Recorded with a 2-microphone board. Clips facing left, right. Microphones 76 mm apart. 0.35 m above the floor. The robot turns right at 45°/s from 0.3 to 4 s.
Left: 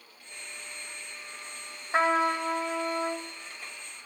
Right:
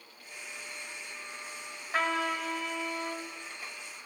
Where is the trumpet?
45° left, 1.9 m; by 3.2 s 100° left, 1.9 m.